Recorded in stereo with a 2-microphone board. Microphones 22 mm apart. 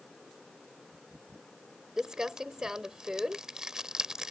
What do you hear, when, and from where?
2.0 s crumpling: 30° right (ahead or behind)